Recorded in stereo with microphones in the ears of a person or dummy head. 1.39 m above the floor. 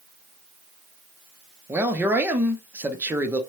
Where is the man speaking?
10° right (ahead or behind), 0.6 m.